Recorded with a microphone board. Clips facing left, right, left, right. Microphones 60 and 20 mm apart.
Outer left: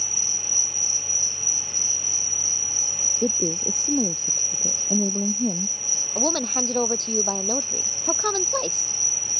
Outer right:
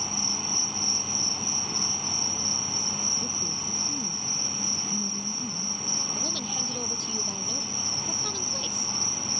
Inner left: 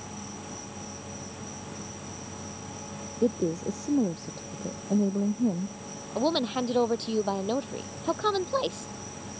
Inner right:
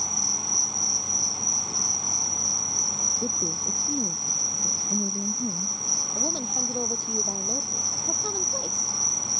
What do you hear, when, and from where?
0.0 s an insect: 65° right (ahead or behind)
3.2 s a woman speaking: 75° left (ahead or behind)
6.2 s a woman speaking: 50° left (ahead or behind)